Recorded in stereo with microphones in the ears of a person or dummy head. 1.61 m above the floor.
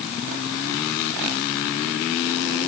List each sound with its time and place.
Only background noise.